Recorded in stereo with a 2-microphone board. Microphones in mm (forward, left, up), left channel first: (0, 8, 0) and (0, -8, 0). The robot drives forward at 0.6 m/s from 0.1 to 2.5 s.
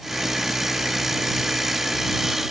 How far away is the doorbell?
I don't hear a doorbell.